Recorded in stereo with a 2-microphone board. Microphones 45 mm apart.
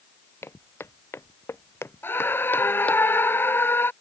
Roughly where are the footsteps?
Left.